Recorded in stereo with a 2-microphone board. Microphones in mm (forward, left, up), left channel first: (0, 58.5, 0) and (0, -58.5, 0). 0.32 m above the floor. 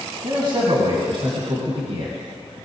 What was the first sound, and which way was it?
A man speaking, 40° right (ahead or behind).